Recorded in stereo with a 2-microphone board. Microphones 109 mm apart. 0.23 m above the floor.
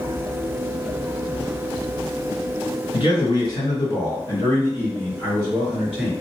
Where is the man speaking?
45° left (ahead or behind), 1.9 m; by 6.1 s 10° right (ahead or behind), 1.7 m.